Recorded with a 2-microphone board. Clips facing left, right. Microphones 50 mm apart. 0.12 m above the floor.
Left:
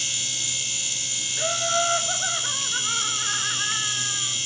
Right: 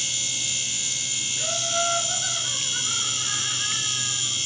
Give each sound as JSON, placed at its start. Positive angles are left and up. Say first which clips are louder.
{"t": 1.4, "sound": "laughter", "louder": "left 4 dB", "side_deg": 30, "distance_m": 1.3}